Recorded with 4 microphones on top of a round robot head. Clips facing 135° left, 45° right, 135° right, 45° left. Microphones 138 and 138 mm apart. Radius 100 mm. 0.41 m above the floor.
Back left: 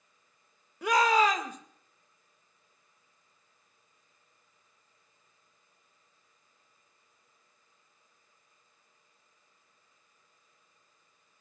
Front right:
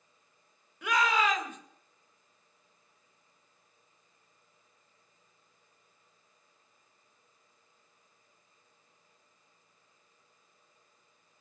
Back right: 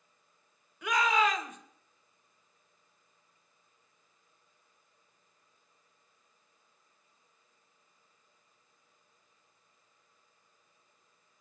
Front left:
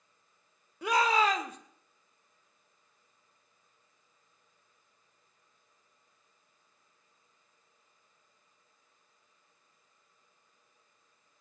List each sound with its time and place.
0.8 s a shout: 95° left, 2 m